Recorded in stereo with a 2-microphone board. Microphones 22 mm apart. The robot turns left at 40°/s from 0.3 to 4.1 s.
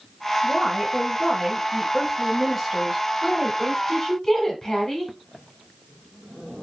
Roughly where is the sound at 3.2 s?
Centre.